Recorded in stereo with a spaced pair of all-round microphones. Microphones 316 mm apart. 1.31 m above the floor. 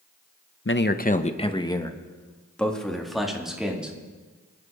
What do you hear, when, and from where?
0.7 s a man speaking: 40° left (ahead or behind), 0.8 m; by 4.0 s 5° right (ahead or behind), 3 m